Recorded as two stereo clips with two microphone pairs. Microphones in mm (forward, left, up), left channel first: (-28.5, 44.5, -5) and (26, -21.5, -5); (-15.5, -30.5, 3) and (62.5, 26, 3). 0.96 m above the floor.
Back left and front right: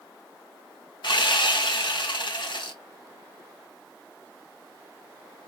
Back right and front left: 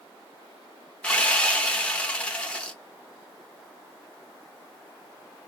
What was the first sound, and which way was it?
Sawing, 140° left.